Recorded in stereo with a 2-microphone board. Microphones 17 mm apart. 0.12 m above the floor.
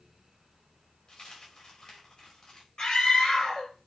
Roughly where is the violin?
I don't hear a violin.